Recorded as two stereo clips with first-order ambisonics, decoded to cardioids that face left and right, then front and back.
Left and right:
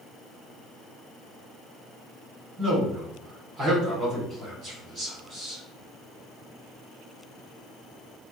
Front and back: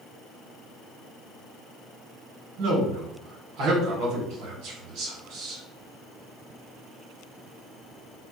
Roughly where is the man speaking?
Behind right.